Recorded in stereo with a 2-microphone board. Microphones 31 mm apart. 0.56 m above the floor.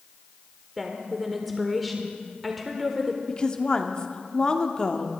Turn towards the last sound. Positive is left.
turn(degrees=30)  # may be behind; listen again after turning